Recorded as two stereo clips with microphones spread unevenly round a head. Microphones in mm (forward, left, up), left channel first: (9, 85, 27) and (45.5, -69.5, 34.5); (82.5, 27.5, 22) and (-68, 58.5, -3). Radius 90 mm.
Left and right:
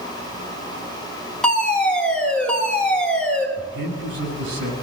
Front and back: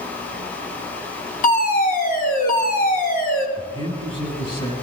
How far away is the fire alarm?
About 4.5 m.